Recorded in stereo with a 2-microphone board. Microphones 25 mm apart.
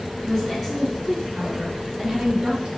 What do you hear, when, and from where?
0.2 s a woman speaking: 5° left (ahead or behind), 2.5 m; by 2.7 s 45° right (ahead or behind), 2 m